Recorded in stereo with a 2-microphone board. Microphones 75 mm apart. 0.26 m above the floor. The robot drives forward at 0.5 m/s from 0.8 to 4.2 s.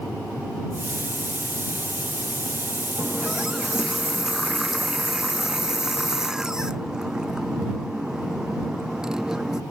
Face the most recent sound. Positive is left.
turn(degrees=-10)  # may be behind; listen again after turning